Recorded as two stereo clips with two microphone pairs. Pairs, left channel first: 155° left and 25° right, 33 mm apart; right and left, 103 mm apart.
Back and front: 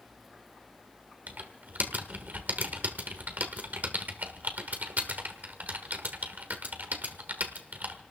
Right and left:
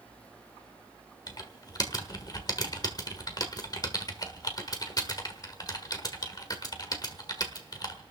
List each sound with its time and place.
1.3 s typing on a keyboard: 40° right, 1.4 m